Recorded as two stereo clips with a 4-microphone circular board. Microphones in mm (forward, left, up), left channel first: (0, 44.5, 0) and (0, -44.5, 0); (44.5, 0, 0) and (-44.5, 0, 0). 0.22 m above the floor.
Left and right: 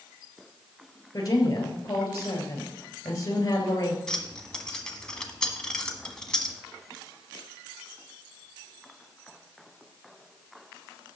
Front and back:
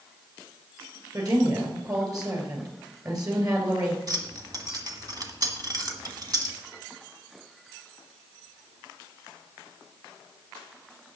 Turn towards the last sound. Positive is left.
turn(degrees=170)